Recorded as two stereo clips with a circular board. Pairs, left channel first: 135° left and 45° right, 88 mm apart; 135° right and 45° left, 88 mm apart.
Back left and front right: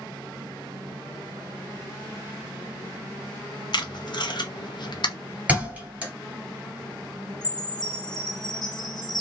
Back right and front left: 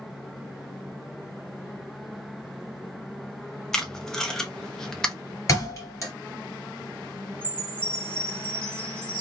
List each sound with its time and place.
3.7 s tape being pulled: 140° left, 0.6 m
5.5 s a thud: 110° right, 1.7 m
7.4 s a chime: 150° left, 1.1 m